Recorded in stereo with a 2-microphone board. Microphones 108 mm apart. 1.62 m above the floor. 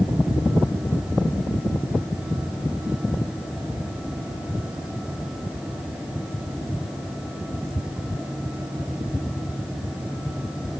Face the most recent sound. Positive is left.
No sound to turn to.